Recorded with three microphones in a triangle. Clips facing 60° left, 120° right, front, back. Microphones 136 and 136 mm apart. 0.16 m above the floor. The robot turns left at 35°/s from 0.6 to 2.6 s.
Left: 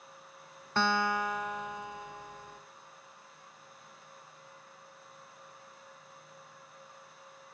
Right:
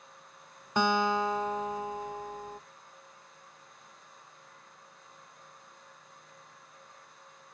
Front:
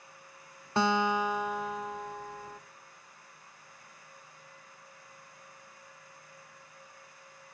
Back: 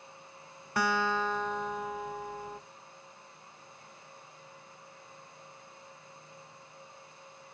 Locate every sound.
0.8 s a guitar: 50° right, 0.6 m; by 2.6 s 115° right, 0.6 m